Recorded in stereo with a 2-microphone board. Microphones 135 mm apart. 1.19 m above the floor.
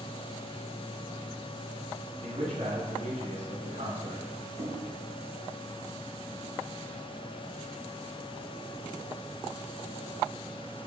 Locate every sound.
2.2 s a man speaking: 60° right (ahead or behind), 2.5 m
4.6 s knocking: 55° right (ahead or behind), 1.2 m